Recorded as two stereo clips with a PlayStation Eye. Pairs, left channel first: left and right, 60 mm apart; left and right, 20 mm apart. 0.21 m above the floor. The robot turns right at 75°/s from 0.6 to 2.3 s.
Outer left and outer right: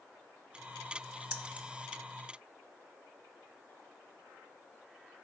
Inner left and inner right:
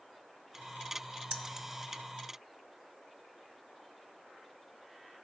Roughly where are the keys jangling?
Right.